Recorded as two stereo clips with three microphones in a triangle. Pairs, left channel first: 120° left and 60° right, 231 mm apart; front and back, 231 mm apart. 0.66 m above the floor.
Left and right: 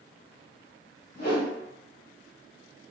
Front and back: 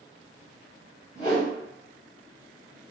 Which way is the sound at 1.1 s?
65° left.